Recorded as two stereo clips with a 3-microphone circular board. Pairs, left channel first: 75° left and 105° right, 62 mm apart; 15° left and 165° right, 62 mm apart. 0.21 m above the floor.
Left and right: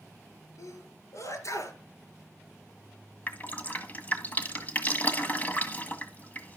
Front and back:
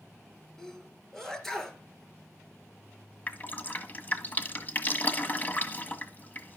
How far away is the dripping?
About 1.6 m.